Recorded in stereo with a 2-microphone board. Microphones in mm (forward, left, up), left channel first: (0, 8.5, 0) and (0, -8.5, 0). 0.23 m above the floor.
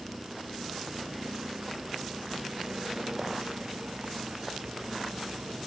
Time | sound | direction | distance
0.0 | a vehicle | 20° right (ahead or behind) | ?